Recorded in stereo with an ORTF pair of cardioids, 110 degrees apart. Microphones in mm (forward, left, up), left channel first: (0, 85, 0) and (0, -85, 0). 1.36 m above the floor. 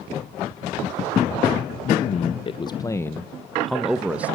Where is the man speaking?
50° left, 0.9 m; by 4.4 s 10° right, 1.5 m.